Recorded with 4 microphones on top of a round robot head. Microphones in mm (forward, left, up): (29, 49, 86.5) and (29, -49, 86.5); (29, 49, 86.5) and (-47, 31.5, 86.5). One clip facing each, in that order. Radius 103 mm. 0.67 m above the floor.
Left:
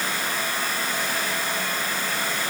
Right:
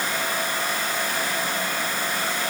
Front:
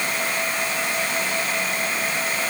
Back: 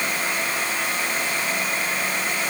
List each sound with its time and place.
Only background noise.